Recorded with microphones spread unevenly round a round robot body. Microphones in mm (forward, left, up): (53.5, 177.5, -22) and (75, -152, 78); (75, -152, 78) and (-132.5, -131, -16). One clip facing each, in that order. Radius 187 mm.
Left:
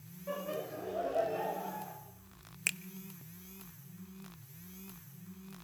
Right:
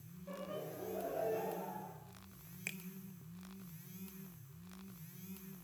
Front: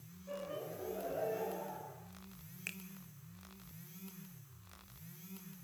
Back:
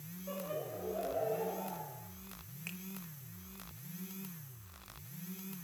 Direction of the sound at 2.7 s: 90° left.